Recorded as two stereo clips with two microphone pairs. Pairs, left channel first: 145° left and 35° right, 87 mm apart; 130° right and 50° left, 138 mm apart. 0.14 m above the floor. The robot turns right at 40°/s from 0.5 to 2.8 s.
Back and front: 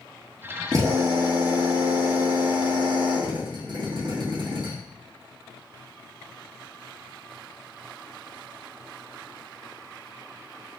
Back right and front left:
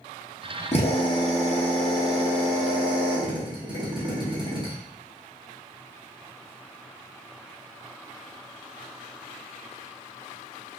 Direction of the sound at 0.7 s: 85° right.